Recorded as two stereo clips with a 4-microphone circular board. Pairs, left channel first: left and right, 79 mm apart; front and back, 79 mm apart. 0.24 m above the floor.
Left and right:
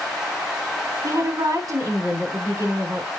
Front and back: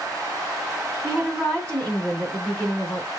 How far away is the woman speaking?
About 2 m.